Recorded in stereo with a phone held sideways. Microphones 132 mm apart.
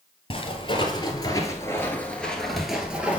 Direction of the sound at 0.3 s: 40° left (ahead or behind).